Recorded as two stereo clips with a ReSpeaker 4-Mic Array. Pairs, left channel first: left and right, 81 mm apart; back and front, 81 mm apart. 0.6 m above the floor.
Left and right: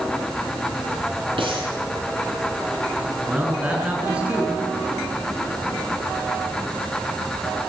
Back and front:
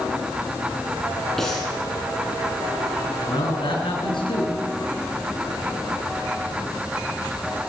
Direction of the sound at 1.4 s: 95° right.